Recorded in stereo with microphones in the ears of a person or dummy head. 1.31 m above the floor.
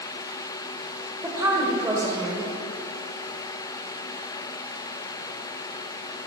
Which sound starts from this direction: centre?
A woman speaking, at 1.2 s.